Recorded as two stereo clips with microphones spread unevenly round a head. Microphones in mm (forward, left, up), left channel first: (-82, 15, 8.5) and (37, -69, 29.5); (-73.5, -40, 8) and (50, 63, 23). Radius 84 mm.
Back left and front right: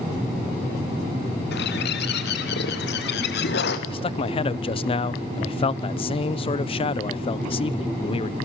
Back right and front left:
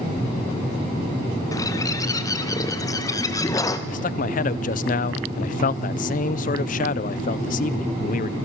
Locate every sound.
1.5 s a bird: 150° left, 1.9 m
3.9 s a man speaking: 165° right, 0.6 m